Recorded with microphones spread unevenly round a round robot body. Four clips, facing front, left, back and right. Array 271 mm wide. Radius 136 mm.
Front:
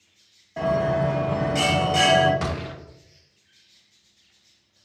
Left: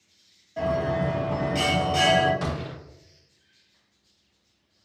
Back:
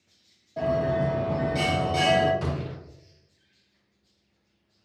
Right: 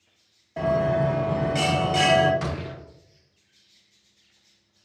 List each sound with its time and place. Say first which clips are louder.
0.6 s a bell: right 3 dB, front 2 dB; 85° right, 0.6 m
2.4 s a gunshot: even, front 2 dB; 15° left, 0.8 m